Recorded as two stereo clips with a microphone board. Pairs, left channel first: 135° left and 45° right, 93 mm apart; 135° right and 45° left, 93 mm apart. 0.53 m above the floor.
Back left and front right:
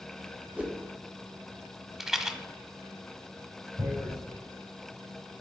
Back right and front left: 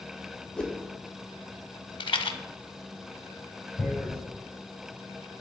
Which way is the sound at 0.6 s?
75° right.